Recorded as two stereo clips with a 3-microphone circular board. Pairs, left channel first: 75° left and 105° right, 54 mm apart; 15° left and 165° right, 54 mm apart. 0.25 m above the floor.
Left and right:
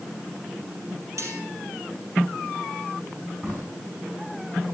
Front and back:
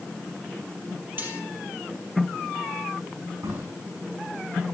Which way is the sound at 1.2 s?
115° right.